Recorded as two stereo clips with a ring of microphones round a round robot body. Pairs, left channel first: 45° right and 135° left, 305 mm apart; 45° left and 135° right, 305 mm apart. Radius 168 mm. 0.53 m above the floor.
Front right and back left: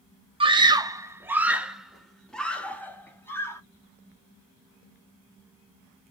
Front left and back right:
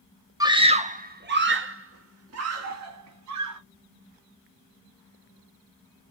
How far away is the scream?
About 1.2 m.